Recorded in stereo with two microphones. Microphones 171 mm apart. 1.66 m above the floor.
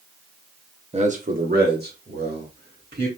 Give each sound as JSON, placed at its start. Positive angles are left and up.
{"t": 0.9, "sound": "a man speaking", "side_deg": -35, "distance_m": 1.1}